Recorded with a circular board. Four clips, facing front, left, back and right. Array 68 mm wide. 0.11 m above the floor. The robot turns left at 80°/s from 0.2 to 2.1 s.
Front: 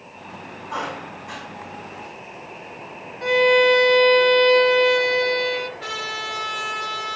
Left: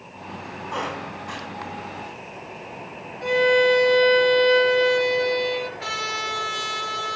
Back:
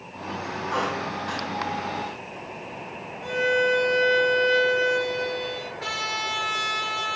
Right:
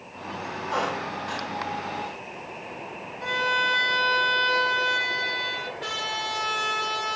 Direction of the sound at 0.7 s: 110° right.